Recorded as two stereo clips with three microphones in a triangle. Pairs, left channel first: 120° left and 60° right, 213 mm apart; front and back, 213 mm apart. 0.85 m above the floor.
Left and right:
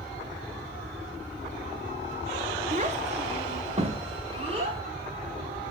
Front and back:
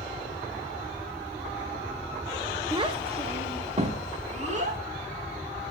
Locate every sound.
2.7 s a child speaking: 110° right, 0.7 m; by 4.8 s 125° right, 2 m